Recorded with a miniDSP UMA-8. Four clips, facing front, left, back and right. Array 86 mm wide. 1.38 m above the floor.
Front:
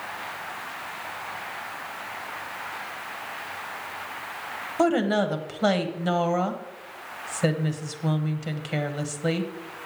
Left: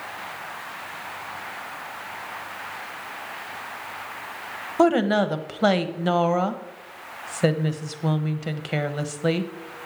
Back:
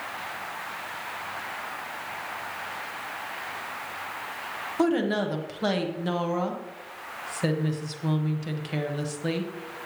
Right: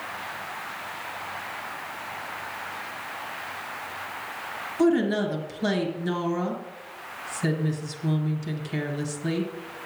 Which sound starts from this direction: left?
A woman speaking, at 4.8 s.